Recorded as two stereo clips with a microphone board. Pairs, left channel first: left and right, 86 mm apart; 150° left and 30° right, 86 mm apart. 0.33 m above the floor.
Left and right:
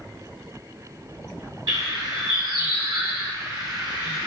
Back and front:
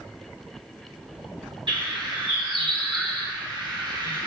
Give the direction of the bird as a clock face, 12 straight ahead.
2 o'clock.